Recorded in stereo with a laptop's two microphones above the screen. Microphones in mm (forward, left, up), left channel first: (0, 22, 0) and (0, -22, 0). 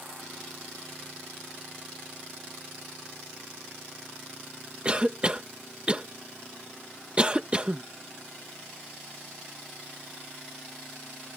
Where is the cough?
20° right (ahead or behind).